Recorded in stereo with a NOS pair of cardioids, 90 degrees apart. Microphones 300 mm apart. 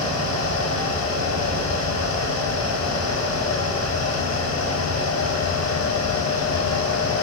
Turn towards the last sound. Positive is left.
turn(degrees=60)